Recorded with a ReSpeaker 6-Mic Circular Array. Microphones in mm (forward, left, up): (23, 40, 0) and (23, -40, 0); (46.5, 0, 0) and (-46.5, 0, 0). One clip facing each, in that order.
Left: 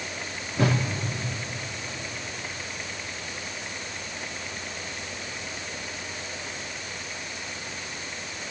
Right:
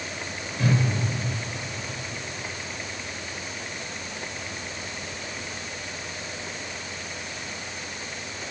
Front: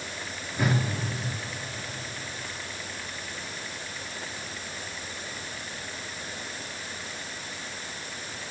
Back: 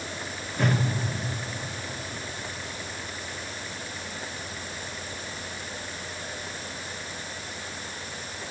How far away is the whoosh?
About 1.6 m.